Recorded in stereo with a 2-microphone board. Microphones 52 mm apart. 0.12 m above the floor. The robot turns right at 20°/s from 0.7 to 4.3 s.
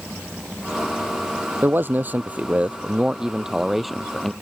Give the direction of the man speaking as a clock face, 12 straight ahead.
2 o'clock.